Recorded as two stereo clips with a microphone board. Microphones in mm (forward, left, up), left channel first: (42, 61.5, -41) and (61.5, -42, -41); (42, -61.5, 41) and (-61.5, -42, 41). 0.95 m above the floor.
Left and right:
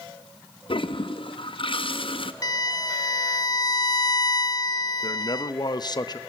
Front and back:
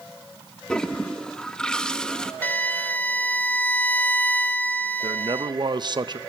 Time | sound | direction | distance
0.7 | a toilet flushing | 70° left | 0.9 m
2.4 | a violin | 55° left | 0.8 m
5.0 | a man speaking | 135° left | 0.8 m